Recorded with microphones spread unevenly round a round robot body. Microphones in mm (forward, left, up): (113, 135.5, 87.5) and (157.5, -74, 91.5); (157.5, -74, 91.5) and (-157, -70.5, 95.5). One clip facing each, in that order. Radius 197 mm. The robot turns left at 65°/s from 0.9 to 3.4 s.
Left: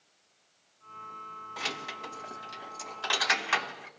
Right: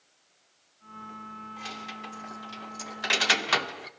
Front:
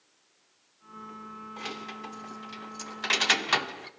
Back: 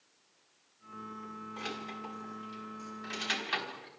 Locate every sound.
1.6 s keys jangling: 90° left, 1.4 m; by 3.9 s 25° right, 1.4 m